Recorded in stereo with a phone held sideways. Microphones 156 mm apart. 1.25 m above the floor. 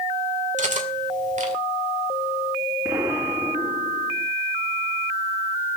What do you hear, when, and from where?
0.6 s cutlery clinking: 50° right (ahead or behind), 2 m
2.9 s an explosion: 15° right (ahead or behind), 3 m